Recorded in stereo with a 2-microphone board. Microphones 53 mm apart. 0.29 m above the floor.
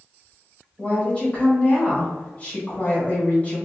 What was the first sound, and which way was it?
A woman speaking, 25° left (ahead or behind).